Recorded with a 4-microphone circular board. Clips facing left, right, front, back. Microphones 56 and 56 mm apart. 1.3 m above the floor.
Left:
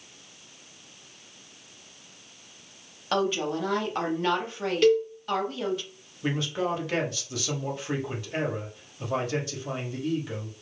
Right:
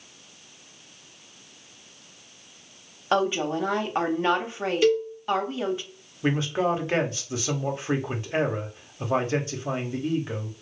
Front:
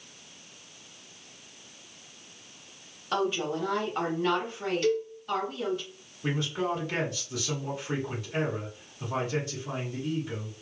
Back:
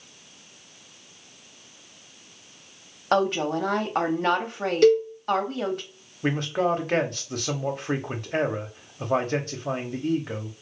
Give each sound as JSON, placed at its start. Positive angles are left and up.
{"t": 3.1, "sound": "a woman speaking", "azimuth_deg": -155, "distance_m": 0.7}
{"t": 4.8, "sound": "a cowbell", "azimuth_deg": 180, "distance_m": 0.5}
{"t": 6.2, "sound": "a man speaking", "azimuth_deg": -150, "distance_m": 0.7}